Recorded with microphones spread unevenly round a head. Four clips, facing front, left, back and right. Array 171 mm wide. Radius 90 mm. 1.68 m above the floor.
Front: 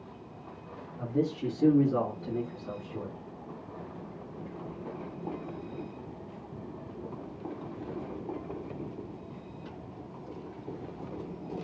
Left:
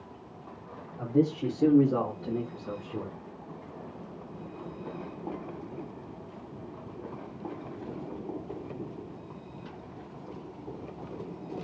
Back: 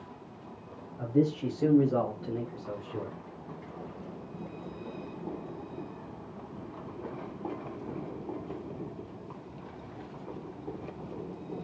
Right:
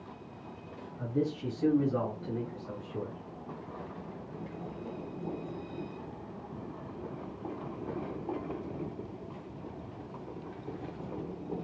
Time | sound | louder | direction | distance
1.0 | a man speaking | left 6 dB, back 3 dB | 90° left | 4 m